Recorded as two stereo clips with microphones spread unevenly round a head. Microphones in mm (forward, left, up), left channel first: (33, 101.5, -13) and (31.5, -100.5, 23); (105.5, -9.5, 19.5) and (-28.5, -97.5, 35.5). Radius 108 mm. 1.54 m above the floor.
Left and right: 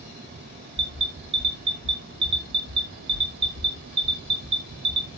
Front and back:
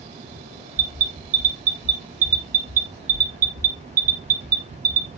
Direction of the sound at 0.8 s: 115° right.